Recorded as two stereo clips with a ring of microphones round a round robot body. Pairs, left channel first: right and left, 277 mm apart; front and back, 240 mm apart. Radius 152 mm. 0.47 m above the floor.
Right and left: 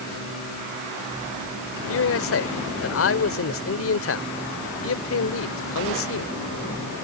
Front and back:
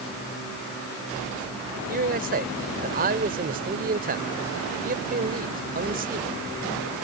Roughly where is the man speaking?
Behind right.